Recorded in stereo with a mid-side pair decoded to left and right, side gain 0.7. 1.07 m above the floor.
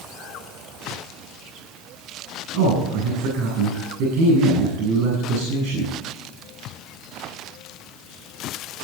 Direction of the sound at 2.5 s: 65° right.